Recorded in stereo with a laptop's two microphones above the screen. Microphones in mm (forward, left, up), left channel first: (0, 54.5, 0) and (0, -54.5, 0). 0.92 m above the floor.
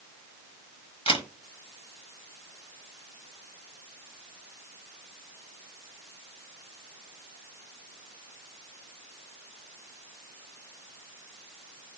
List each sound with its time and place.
1.1 s a camera shutter: 55° left (ahead or behind), 1.5 m